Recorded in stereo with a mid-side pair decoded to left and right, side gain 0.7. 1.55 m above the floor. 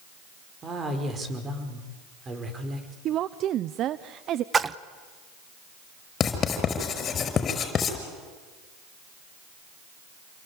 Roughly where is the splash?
Ahead right.